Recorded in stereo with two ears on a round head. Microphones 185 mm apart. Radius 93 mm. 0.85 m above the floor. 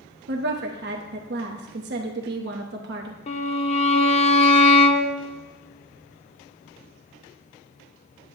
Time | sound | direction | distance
0.3 | a woman speaking | 55° right (ahead or behind) | 1.0 m
3.3 | a violin | 30° left (ahead or behind) | 0.8 m